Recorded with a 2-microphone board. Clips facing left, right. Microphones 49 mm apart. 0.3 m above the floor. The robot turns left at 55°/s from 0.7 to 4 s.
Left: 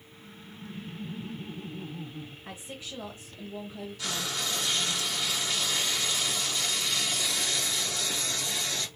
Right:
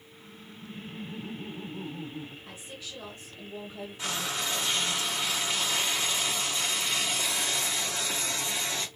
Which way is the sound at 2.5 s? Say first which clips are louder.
Left 2 dB; 55° left.